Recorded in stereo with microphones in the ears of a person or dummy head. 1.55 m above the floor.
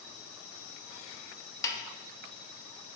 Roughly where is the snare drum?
Left.